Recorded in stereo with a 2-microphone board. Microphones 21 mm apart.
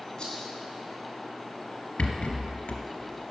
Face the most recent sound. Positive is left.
turn(degrees=85)